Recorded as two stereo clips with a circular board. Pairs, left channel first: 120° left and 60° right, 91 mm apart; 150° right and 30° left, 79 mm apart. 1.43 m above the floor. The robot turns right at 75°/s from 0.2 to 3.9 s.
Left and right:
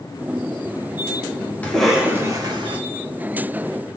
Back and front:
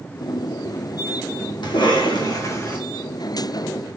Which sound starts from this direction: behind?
A cough, at 1.6 s.